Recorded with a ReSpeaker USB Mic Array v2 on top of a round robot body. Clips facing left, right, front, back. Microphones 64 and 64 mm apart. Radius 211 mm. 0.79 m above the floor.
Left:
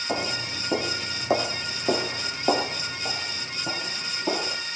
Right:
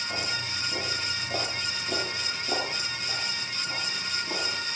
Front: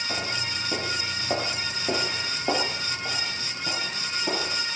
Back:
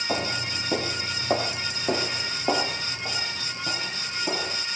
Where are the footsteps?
125° left, 3 m; by 4.6 s 90° left, 7 m.